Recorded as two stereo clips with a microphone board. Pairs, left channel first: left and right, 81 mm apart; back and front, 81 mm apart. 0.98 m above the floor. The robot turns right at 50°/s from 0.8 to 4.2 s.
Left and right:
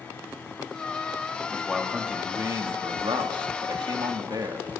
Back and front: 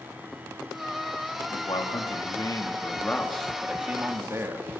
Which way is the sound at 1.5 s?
170° left.